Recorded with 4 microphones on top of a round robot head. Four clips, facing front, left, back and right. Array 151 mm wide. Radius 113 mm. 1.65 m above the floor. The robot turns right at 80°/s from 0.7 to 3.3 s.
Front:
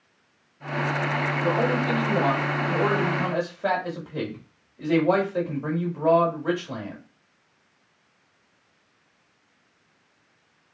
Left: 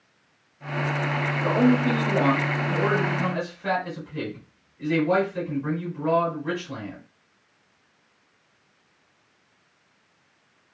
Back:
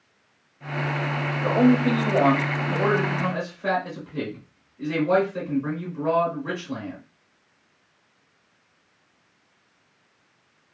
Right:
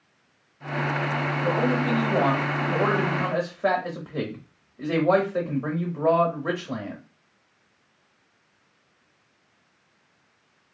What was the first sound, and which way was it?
A man speaking, 150° left.